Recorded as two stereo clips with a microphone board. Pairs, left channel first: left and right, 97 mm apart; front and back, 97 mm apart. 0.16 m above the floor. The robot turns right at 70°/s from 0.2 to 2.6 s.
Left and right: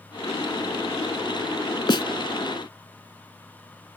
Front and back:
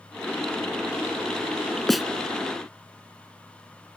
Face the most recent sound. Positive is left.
turn(degrees=135)